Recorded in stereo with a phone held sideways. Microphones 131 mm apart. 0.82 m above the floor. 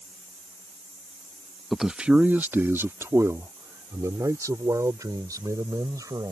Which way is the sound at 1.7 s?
Centre (ahead or behind).